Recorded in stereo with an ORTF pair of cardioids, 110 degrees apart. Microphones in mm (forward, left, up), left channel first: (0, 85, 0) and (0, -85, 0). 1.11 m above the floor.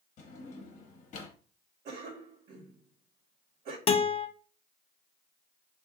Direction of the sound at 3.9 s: 35° left.